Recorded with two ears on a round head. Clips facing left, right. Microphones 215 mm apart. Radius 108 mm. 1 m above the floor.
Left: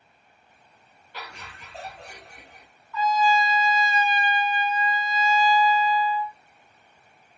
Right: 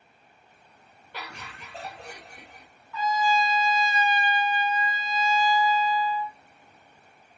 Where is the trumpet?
55° right (ahead or behind), 1.3 m.